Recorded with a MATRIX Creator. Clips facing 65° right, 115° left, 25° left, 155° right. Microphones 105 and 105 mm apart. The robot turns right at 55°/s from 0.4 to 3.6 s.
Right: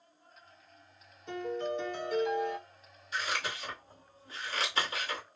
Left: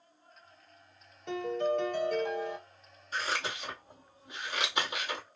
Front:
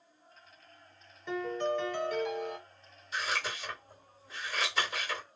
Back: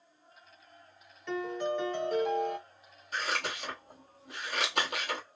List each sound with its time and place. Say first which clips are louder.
1.3 s a piano: left 4 dB, even; 100° left, 1.1 m; by 2.6 s 175° left, 1.1 m
3.1 s scissors: left 1 dB, back 1 dB; 160° left, 1.2 m; by 5.2 s 170° right, 1.2 m